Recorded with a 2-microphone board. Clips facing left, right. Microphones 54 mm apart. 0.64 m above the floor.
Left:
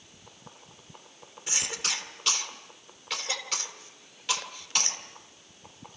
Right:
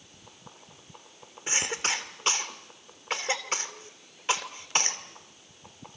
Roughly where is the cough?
Right.